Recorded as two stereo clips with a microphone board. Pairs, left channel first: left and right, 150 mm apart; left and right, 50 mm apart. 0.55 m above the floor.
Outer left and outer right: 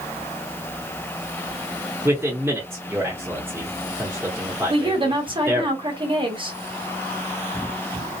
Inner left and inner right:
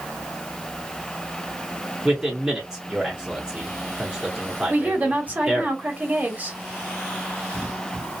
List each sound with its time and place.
2.0 s a man speaking: 15° right (ahead or behind), 0.9 m
4.7 s a woman speaking: 30° right (ahead or behind), 1.1 m